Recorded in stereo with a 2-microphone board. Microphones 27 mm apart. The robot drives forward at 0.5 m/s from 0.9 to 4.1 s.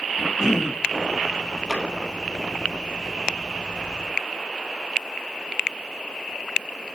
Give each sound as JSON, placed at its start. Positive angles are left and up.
{"t": 0.2, "sound": "a cough", "side_deg": 0, "distance_m": 1.2}
{"t": 1.7, "sound": "a drawer", "side_deg": -10, "distance_m": 2.5}